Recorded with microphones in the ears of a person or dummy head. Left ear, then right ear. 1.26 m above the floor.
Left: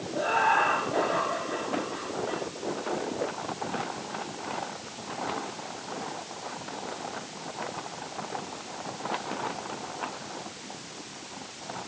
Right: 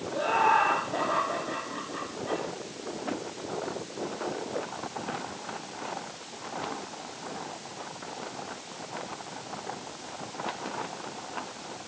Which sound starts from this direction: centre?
Laughter, at 0.1 s.